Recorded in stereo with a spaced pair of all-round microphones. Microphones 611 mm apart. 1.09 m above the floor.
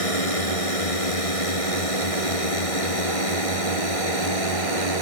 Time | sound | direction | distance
0.0 | a drone | 60° left (ahead or behind) | ?